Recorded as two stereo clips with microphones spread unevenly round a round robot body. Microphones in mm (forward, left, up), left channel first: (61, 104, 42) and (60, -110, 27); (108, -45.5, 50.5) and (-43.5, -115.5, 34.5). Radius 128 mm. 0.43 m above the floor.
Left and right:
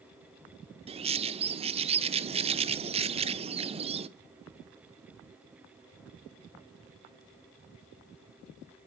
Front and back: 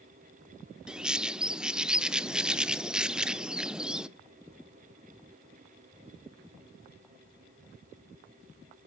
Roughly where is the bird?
Right.